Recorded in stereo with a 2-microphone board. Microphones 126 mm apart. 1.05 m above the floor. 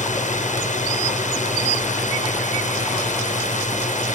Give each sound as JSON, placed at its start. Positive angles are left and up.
{"t": 0.0, "sound": "a drone", "side_deg": 75}